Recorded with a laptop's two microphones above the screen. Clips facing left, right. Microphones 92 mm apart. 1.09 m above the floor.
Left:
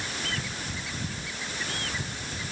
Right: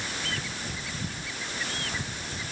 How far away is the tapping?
No tapping in this recording.